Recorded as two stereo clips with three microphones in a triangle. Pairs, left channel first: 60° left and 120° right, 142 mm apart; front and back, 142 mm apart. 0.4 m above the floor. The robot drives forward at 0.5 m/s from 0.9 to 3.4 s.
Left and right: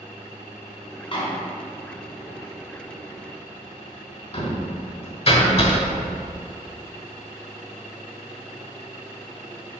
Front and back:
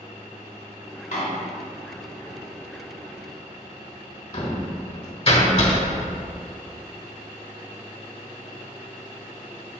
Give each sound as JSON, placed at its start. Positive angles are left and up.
{"t": 1.1, "sound": "a door slam", "azimuth_deg": 15, "distance_m": 2.0}